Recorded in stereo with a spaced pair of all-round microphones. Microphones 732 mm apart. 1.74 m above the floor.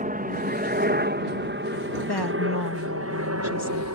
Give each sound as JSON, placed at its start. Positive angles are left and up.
{"t": 0.0, "sound": "a helicopter", "side_deg": -10}
{"t": 2.1, "sound": "a woman speaking", "side_deg": 30}